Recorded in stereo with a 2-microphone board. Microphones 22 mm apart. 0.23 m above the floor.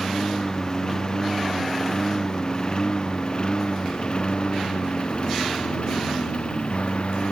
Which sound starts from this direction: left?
A lawn mower, at 0.0 s.